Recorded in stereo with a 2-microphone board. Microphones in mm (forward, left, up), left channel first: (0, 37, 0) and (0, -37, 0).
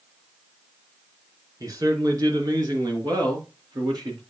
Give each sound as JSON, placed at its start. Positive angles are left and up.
{"t": 1.6, "sound": "a man speaking", "side_deg": -50, "distance_m": 2.5}